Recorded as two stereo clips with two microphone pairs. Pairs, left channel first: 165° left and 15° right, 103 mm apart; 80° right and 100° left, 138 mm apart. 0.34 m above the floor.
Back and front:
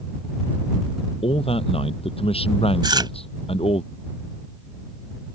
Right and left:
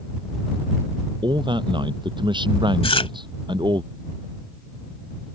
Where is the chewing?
45° right.